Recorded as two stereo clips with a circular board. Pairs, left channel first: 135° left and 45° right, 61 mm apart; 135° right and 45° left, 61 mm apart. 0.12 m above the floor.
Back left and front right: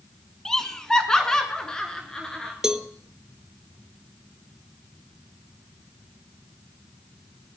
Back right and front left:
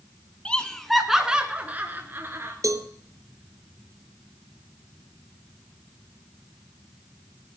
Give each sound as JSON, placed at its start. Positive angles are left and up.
{"t": 0.5, "sound": "laughter", "azimuth_deg": -160, "distance_m": 1.2}
{"t": 2.6, "sound": "a cowbell", "azimuth_deg": 35, "distance_m": 0.7}